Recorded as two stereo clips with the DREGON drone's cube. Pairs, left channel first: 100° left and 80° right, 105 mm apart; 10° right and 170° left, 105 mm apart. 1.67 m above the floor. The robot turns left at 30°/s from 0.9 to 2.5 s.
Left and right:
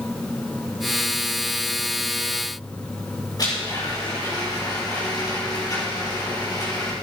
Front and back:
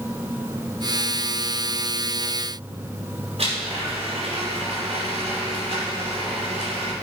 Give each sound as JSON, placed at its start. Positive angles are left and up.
{"t": 3.4, "sound": "a blender", "azimuth_deg": 150, "distance_m": 5.0}